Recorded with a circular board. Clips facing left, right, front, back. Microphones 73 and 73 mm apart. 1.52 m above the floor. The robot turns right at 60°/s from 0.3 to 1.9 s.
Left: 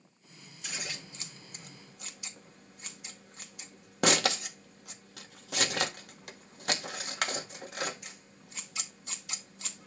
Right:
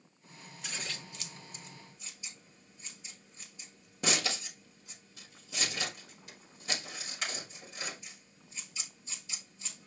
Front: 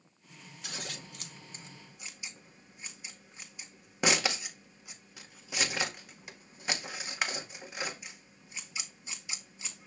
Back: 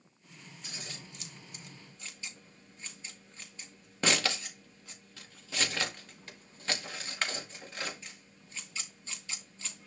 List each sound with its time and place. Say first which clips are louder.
0.6 s scissors: left 1 dB, front 4 dB; straight ahead, 1.9 m; by 9.9 s 75° left, 1.9 m